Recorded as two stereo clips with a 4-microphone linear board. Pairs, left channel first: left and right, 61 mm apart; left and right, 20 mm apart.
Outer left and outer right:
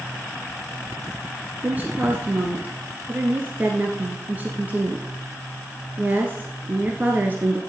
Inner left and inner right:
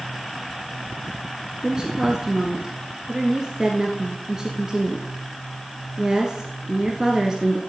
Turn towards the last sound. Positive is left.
turn(degrees=-30)  # may be behind; listen again after turning